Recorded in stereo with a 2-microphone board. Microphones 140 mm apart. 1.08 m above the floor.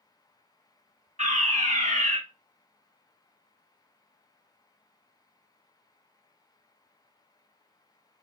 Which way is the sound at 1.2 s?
55° right (ahead or behind).